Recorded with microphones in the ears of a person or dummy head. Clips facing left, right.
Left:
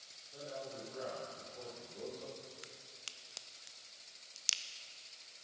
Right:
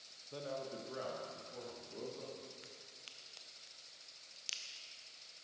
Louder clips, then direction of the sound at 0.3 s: Right 2 dB; 85° right.